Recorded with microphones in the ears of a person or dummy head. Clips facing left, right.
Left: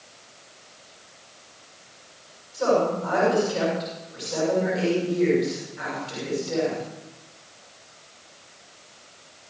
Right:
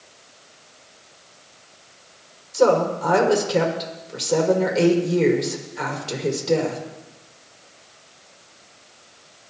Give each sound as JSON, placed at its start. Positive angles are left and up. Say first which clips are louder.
{"t": 2.5, "sound": "a woman speaking", "louder": "right 4 dB", "side_deg": -80, "distance_m": 6.5}